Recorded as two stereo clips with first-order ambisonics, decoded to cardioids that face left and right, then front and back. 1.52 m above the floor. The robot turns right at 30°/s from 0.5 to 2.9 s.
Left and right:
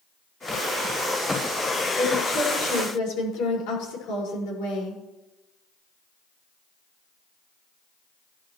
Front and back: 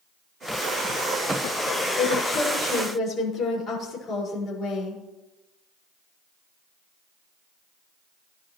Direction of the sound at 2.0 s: 35° left.